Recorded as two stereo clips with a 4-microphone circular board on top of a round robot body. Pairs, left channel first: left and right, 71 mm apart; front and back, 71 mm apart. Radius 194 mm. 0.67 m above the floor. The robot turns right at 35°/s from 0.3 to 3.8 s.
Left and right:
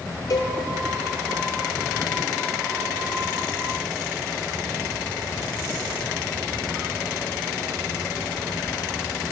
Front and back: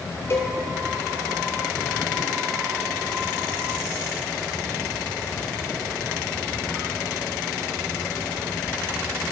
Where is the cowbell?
55° left, 0.8 m; by 0.6 s 60° left, 0.8 m.